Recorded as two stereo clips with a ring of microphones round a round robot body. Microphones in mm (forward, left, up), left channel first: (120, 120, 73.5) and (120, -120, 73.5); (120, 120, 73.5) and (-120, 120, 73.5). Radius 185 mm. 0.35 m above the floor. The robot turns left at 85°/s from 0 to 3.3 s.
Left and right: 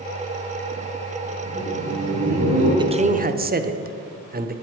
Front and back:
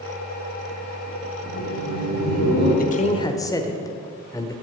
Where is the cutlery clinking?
No cutlery clinking in this recording.